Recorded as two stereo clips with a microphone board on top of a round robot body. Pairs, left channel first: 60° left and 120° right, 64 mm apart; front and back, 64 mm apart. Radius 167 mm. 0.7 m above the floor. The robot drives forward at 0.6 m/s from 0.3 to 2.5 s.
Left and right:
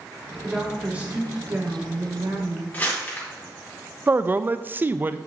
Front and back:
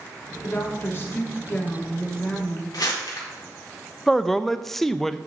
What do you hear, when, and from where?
0.4 s a woman speaking: 45° right, 2 m; by 2.6 s 80° right, 1.6 m
2.7 s crumpling: straight ahead, 2.5 m
4.1 s a man speaking: 85° right, 0.6 m